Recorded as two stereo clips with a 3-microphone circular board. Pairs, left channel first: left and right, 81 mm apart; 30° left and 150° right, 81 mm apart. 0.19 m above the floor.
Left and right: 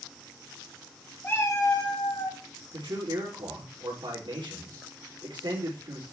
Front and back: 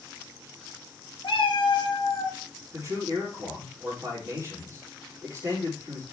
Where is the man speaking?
95° right, 4.5 m.